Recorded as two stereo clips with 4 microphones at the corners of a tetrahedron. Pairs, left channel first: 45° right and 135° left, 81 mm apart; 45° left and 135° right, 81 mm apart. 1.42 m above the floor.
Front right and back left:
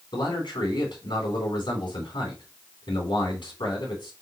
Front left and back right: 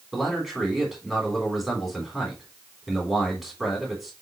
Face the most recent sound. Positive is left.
turn(degrees=-45)